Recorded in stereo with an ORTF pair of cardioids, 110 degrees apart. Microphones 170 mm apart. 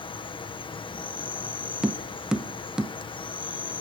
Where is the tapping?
5° right, 0.7 m.